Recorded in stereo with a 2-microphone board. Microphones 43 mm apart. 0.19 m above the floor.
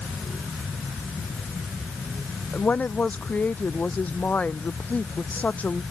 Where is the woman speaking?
35° left (ahead or behind).